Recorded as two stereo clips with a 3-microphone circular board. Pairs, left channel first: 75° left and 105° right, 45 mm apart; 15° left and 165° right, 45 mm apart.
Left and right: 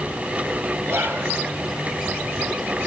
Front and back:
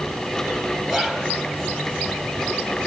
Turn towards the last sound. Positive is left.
turn(degrees=-80)